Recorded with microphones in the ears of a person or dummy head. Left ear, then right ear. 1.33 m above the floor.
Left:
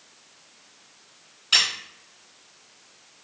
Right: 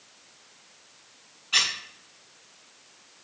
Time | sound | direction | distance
1.5 | a squeak | 75° left (ahead or behind) | 0.7 m